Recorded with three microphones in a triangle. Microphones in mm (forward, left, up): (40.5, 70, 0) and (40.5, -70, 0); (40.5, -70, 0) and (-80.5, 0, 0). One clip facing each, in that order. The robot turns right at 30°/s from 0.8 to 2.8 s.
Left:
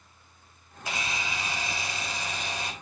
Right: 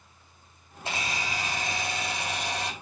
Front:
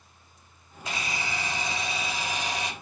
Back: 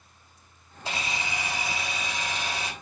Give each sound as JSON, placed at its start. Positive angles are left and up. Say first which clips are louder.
{"t": 0.8, "sound": "a camera shutter", "louder": "right 1 dB, back 1 dB", "azimuth_deg": -150, "distance_m": 3.5}